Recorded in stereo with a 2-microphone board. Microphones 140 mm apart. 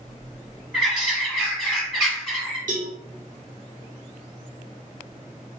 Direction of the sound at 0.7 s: 5° left (ahead or behind).